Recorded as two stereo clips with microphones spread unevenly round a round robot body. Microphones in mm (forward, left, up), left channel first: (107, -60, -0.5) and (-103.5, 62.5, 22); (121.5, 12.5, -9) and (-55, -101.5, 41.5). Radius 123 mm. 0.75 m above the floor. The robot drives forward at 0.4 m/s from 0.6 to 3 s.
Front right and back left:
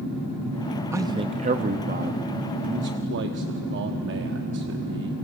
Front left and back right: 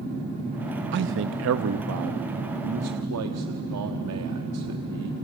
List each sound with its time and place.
0.9 s a man speaking: 130° right, 0.5 m; by 5.1 s 165° right, 1.1 m